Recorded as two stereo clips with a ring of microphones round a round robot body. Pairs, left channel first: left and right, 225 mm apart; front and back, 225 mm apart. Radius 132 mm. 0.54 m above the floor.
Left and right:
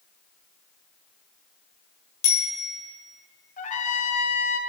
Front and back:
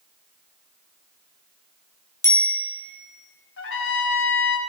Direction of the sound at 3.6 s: 35° left.